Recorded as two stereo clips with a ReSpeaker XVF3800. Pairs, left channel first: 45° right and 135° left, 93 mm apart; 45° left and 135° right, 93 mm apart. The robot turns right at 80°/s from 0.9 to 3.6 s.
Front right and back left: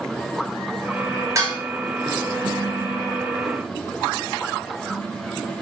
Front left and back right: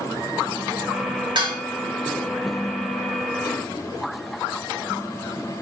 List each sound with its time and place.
1.4 s dishes clattering: 170° right, 3 m; by 1.6 s 155° right, 3 m